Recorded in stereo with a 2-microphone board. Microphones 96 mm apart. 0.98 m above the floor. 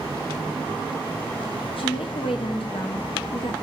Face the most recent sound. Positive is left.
turn(degrees=65)  # may be behind; listen again after turning